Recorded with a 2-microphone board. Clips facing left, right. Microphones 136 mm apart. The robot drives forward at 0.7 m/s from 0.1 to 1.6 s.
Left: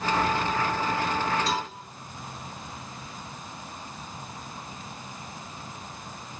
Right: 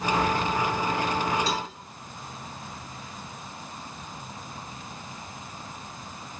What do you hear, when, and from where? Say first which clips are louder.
1.5 s a cowbell: left 1 dB; 60° left (ahead or behind), 2 m